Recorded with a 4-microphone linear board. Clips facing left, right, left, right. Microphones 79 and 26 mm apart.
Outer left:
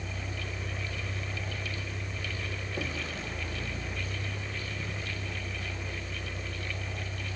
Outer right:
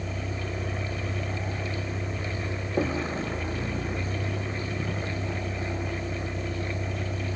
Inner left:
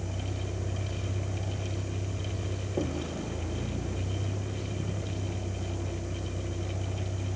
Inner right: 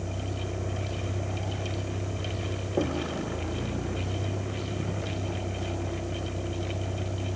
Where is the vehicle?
35° right (ahead or behind); by 7.4 s 50° right (ahead or behind).